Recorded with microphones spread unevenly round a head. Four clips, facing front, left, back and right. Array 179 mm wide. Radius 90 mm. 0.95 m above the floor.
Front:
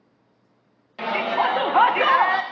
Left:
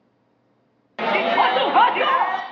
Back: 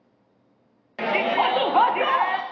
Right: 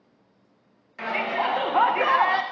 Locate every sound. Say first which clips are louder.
1.0 s a shout: left 8 dB, back 1 dB; 110° left, 1.3 m; by 2.4 s 20° right, 0.9 m